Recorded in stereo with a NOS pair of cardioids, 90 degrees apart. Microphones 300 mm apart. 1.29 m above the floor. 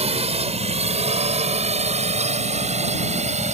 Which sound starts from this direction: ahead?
A drone, at 0.0 s.